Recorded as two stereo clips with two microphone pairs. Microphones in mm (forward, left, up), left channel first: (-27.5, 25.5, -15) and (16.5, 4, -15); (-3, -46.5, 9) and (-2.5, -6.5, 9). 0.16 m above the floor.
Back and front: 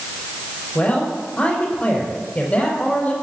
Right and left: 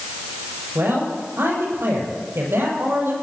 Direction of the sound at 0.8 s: 95° left.